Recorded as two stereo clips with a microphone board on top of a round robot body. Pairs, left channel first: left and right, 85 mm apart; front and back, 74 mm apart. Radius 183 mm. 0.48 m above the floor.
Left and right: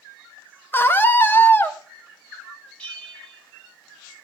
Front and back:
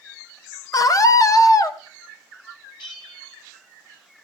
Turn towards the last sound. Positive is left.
turn(degrees=15)